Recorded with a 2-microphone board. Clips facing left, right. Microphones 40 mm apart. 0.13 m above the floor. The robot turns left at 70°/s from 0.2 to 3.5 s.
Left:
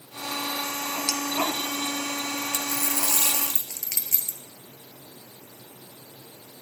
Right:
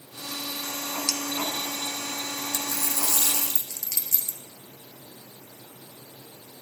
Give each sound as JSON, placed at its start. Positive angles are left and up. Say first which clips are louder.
{"t": 1.1, "sound": "a clink", "louder": "left 3 dB", "side_deg": 20, "distance_m": 0.6}
{"t": 2.5, "sound": "a dropped coin", "louder": "left 2 dB", "azimuth_deg": 130, "distance_m": 0.7}